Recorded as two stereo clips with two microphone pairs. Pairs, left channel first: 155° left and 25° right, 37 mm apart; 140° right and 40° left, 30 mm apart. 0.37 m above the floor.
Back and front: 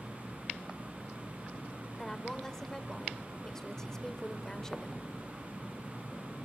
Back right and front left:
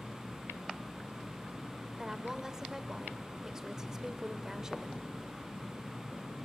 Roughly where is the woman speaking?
Left.